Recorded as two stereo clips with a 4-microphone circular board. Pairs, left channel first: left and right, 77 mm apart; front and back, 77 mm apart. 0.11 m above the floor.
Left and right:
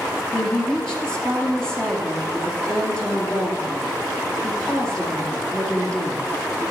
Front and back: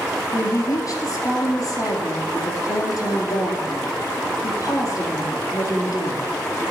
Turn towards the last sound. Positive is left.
turn(degrees=15)